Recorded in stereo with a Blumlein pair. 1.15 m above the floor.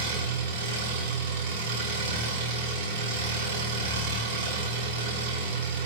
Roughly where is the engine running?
Ahead right.